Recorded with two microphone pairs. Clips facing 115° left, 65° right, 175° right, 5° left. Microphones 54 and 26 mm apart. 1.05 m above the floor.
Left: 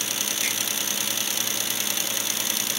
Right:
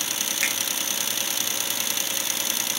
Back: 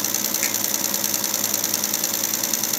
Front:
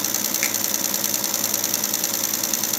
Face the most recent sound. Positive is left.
turn(degrees=-55)